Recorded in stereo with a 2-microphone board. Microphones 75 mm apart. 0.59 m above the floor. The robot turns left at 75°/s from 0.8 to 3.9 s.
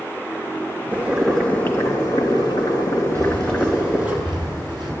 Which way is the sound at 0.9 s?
155° right.